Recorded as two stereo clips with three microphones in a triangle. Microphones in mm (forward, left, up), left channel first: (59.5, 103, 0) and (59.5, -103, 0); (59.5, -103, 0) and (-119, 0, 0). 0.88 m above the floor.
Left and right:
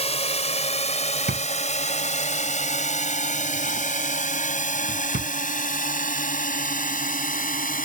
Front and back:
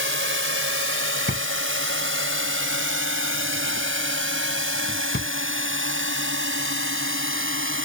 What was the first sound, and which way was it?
A drone, 150° left.